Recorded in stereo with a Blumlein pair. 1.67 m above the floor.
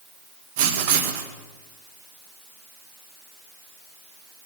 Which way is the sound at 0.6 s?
50° right.